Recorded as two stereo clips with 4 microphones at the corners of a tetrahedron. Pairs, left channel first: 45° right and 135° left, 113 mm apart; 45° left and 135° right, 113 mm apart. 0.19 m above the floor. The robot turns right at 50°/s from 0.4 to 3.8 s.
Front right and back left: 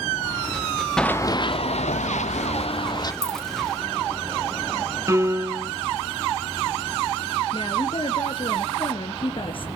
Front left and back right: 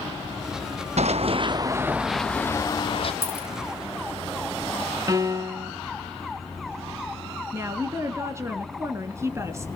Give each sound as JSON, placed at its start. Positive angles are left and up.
{"t": 1.0, "sound": "running footsteps", "azimuth_deg": -130, "distance_m": 0.5}
{"t": 3.2, "sound": "a dropped coin", "azimuth_deg": -165, "distance_m": 1.6}
{"t": 5.1, "sound": "a piano", "azimuth_deg": -175, "distance_m": 0.8}
{"t": 7.5, "sound": "a woman speaking", "azimuth_deg": -75, "distance_m": 2.5}